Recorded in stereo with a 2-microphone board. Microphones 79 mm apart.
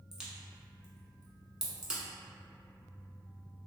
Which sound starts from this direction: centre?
A crack, at 0.1 s.